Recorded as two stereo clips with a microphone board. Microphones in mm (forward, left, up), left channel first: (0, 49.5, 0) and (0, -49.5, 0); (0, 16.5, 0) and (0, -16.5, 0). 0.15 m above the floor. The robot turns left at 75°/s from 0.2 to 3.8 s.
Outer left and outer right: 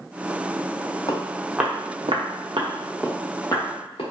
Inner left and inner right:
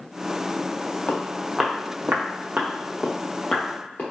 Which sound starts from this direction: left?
Footsteps, at 1.1 s.